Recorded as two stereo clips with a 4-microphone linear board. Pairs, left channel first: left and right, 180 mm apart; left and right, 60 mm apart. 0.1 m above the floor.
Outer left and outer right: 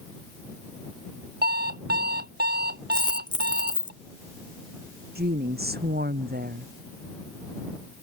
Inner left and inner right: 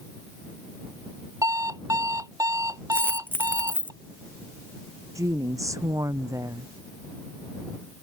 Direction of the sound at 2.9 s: 25° left (ahead or behind).